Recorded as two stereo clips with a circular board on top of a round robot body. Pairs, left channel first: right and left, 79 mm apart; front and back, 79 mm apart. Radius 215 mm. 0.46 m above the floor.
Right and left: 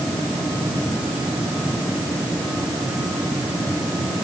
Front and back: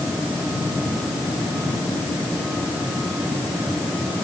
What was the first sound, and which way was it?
Only background noise.